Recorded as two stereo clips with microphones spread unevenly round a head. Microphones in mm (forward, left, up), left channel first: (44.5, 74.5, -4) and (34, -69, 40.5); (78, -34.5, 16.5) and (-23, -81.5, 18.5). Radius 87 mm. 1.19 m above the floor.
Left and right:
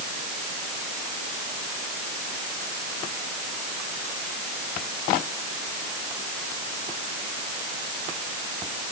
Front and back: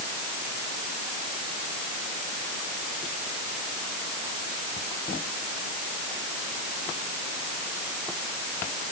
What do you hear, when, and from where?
Only background noise.